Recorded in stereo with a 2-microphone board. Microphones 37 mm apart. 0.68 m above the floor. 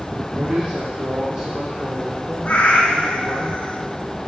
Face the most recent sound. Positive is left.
turn(degrees=45)  # may be behind; listen again after turning